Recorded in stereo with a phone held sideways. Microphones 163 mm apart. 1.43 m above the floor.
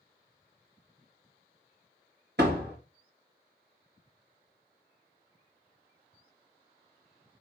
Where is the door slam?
80° right, 1.8 m.